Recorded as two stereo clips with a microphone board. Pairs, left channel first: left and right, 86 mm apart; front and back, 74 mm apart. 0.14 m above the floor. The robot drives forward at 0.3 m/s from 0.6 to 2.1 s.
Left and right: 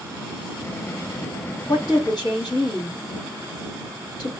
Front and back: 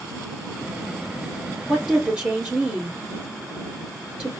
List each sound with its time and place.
1.7 s a woman speaking: 105° left, 1.9 m; by 4.3 s 110° left, 1.9 m